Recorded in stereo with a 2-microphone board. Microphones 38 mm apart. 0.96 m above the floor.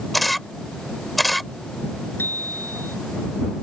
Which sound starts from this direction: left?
A bicycle bell, at 2.2 s.